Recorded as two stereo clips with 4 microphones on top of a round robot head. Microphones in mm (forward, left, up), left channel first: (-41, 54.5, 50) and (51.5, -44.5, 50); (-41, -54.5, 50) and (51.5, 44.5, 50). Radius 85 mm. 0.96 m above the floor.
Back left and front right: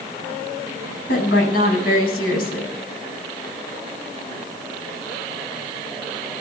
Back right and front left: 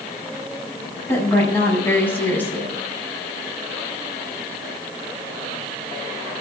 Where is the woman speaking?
150° left, 7.5 m.